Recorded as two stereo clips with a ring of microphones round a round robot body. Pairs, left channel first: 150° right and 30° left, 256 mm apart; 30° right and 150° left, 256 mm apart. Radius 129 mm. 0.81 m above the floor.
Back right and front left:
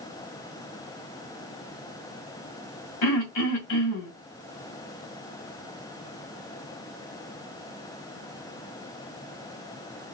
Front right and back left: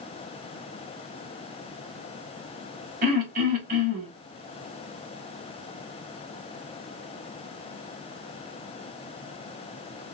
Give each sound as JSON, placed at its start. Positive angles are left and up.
{"t": 3.0, "sound": "throat clearing", "azimuth_deg": -155, "distance_m": 1.5}